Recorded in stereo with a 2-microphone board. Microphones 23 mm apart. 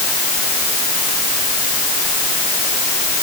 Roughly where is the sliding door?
No sliding door in this recording.